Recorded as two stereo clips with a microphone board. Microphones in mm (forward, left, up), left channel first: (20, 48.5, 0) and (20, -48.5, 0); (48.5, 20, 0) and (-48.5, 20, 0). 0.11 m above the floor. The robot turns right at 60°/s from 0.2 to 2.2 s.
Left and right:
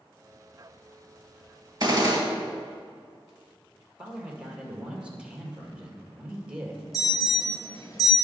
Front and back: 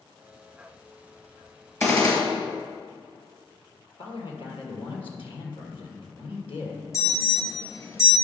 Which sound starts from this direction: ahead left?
An alarm, at 6.9 s.